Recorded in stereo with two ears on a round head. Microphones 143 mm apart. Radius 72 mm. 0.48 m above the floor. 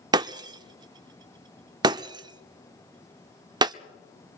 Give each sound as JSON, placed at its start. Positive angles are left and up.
{"t": 0.1, "sound": "breaking glass", "side_deg": -25, "distance_m": 0.5}